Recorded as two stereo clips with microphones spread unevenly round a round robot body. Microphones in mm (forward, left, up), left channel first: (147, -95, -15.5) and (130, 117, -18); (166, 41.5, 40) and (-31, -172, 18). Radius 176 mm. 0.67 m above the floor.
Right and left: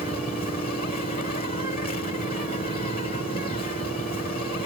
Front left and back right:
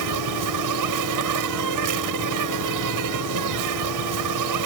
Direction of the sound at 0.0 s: 150° right.